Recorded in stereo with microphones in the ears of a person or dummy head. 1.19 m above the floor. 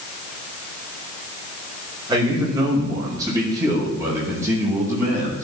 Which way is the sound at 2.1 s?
25° right (ahead or behind).